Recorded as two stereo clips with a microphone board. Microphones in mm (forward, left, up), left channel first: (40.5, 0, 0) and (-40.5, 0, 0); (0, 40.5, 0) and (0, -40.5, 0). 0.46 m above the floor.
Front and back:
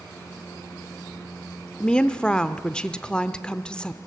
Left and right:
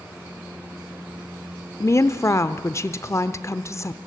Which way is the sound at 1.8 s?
75° left.